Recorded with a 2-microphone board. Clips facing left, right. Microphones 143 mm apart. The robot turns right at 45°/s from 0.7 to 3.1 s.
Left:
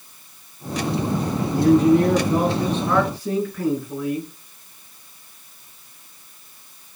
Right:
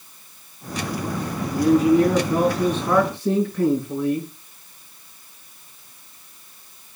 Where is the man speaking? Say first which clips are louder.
Left 1 dB; 130° left, 4.5 m; by 4.3 s 155° right, 4.5 m.